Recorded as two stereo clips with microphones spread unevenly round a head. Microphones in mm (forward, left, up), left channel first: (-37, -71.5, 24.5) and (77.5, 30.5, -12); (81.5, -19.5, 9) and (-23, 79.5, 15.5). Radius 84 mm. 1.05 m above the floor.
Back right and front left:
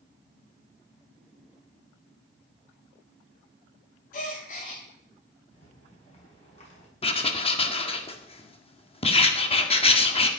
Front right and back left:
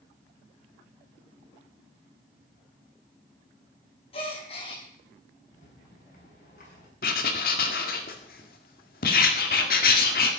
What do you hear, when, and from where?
4.1 s a gasp: 105° right, 4.5 m
5.5 s a rattle: 90° right, 7 m
7.0 s writing: 85° right, 1.9 m